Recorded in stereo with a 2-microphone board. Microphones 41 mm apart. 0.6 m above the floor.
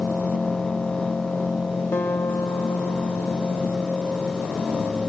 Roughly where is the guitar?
Left.